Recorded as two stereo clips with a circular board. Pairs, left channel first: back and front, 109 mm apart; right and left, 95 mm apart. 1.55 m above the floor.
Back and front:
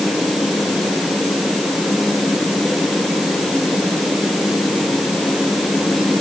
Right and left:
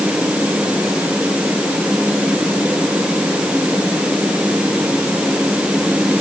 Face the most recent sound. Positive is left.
No sound to turn to.